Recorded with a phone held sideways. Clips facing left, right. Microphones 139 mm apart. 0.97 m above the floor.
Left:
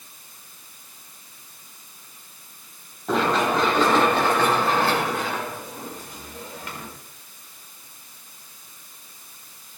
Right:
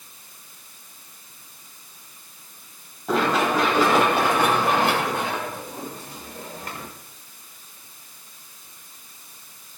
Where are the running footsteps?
Centre (ahead or behind), 7.5 m; by 6.9 s 40° right (ahead or behind), 7 m.